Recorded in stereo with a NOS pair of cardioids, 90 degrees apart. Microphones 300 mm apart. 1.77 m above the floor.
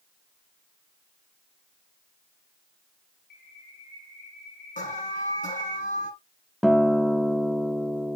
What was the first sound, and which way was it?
A bird, 35° left.